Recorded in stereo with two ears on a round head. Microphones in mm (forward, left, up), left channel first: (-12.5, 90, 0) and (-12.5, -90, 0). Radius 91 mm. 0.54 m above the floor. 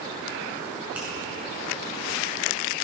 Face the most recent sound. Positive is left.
turn(degrees=-5)  # may be behind; listen again after turning